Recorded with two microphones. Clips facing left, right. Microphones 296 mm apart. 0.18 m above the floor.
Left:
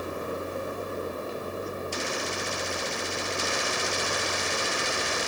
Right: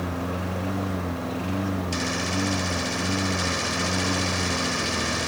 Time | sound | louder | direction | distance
0.0 | a lawn mower | right 3 dB | 80° right | ?